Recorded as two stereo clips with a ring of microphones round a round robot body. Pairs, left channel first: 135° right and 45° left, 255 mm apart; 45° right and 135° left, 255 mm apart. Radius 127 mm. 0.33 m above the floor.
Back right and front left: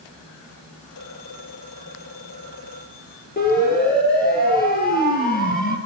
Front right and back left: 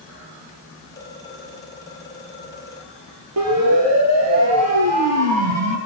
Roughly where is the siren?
Behind.